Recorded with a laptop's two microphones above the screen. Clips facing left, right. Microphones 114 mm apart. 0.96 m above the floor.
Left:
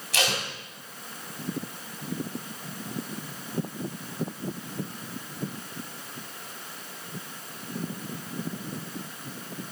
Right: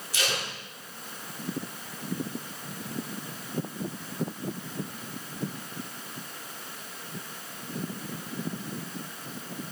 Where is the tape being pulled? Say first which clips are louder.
Left 3 dB; 70° left (ahead or behind), 2.5 m.